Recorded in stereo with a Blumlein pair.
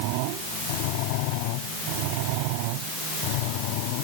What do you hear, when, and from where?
Only background noise.